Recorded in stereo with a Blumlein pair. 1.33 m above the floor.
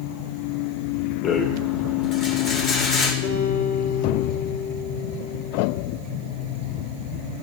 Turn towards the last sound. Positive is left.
turn(degrees=70)